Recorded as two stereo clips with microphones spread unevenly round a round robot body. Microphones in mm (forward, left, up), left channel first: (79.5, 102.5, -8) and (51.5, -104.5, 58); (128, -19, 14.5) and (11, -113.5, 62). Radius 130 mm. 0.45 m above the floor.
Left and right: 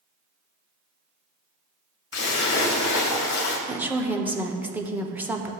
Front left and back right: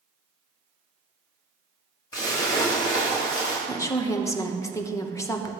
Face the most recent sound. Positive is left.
turn(degrees=0)